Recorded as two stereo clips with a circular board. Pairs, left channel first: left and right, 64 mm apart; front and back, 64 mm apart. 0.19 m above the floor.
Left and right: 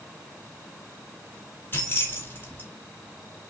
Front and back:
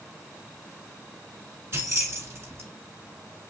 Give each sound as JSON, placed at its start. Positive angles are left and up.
{"t": 1.7, "sound": "keys jangling", "azimuth_deg": 140, "distance_m": 1.6}